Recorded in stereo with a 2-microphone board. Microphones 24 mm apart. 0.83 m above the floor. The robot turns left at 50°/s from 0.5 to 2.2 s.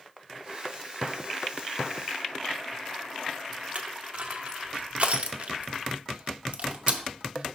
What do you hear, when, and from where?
3.8 s crushing: 50° right (ahead or behind), 0.6 m